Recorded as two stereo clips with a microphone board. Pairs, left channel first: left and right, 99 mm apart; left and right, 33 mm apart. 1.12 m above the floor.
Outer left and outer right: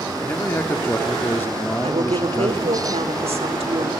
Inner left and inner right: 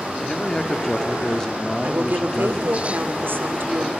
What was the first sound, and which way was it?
A man speaking, 20° left (ahead or behind).